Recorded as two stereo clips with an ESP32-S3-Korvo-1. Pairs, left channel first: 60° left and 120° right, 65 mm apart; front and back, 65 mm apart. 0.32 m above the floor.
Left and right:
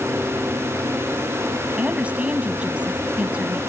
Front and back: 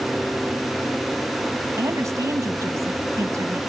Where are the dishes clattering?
I don't hear dishes clattering.